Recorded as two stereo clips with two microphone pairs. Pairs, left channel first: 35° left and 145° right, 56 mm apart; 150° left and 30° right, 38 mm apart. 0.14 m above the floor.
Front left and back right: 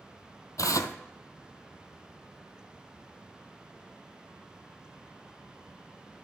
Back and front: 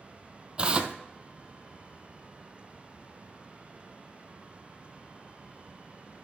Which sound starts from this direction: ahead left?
Tearing paper, at 0.6 s.